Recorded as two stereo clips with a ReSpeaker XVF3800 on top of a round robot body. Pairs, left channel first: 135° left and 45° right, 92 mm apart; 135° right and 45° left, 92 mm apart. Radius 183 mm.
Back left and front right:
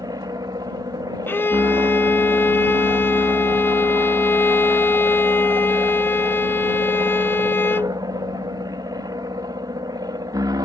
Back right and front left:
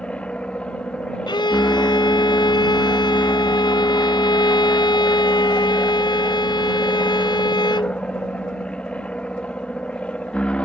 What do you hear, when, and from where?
0.0 s an aircraft: 65° right
1.3 s a violin: 160° right